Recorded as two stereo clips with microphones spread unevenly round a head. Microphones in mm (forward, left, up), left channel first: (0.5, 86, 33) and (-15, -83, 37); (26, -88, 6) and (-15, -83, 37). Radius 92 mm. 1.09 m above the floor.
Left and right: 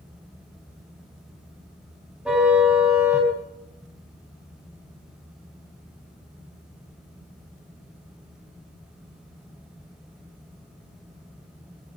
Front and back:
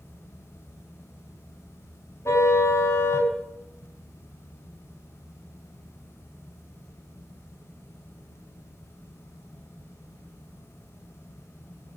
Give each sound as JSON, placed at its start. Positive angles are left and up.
{"t": 2.2, "sound": "a car horn", "azimuth_deg": -10, "distance_m": 5.0}